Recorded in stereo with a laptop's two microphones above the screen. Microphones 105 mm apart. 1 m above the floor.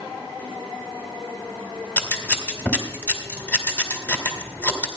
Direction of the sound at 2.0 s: 20° left (ahead or behind).